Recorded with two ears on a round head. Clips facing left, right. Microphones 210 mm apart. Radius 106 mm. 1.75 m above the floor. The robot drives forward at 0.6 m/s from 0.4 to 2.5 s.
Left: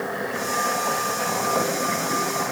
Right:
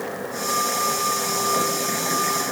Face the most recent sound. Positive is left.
No sound to turn to.